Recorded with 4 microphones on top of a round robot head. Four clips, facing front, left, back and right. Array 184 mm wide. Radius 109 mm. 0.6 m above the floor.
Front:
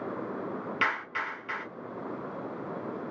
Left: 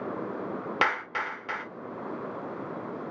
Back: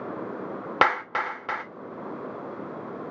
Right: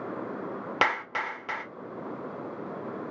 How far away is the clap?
About 1.8 m.